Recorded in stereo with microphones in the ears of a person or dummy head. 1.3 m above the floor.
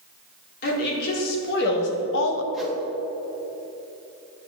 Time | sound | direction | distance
0.6 | a woman speaking | 55° left (ahead or behind) | 3 m
2.5 | a whoosh | centre (ahead or behind) | 1.4 m